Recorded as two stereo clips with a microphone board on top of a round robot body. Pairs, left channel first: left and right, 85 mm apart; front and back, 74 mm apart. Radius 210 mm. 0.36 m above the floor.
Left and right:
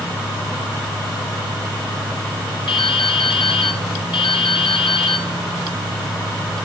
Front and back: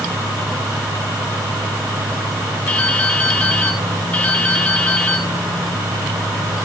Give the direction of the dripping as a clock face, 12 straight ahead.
10 o'clock.